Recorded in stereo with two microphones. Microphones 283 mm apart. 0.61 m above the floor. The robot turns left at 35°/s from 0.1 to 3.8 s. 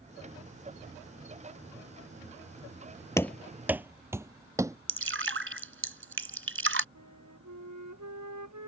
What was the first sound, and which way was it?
Running footsteps, 10° left (ahead or behind).